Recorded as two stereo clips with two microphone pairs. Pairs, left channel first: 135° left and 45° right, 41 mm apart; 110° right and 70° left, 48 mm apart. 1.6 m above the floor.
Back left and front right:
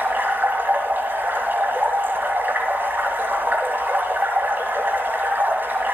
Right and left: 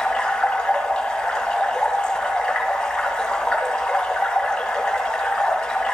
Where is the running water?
40° right, 2.5 m.